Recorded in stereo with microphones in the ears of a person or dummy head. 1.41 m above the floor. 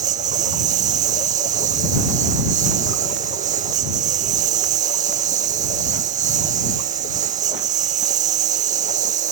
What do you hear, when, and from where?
0.0 s a lawn mower: 40° right (ahead or behind)